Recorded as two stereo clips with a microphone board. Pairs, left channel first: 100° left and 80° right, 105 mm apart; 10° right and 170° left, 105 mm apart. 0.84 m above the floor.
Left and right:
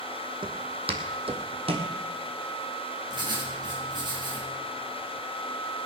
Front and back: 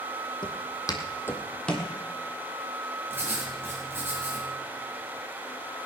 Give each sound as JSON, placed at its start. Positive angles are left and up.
{"t": 0.4, "sound": "footsteps", "azimuth_deg": -50, "distance_m": 2.0}
{"t": 3.1, "sound": "writing", "azimuth_deg": -120, "distance_m": 4.5}